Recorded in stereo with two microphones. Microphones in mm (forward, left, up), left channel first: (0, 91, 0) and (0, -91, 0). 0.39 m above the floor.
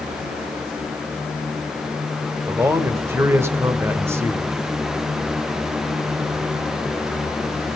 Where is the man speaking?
15° right (ahead or behind), 1.2 m.